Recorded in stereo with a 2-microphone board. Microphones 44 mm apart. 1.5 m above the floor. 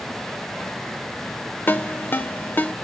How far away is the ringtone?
About 0.6 m.